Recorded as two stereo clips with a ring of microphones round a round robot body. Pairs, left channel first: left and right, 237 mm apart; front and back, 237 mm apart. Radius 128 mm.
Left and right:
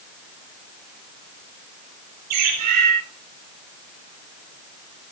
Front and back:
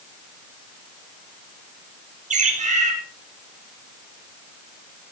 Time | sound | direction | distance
2.3 | a bird | 120° right | 5 m